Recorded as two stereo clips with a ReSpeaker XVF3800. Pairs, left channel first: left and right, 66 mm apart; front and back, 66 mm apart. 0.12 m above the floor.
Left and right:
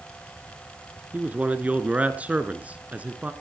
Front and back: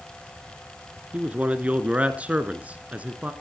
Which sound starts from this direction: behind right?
A man speaking, at 1.1 s.